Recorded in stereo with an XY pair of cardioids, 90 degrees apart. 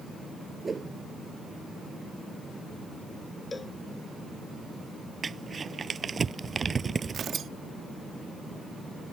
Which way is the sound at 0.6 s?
30° right.